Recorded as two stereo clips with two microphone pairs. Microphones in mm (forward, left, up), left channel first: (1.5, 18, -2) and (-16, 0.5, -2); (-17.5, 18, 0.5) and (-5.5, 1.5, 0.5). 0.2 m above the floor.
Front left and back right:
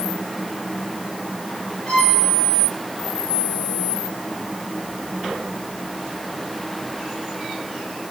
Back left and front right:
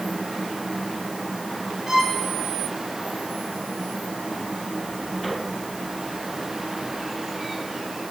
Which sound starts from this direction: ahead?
A violin, at 1.9 s.